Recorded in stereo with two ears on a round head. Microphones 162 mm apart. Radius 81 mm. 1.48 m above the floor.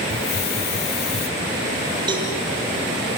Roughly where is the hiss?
Left.